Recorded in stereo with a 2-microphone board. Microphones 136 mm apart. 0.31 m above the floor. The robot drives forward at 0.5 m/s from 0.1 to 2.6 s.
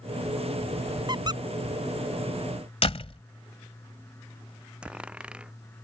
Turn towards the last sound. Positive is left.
turn(degrees=-10)  # may be behind; listen again after turning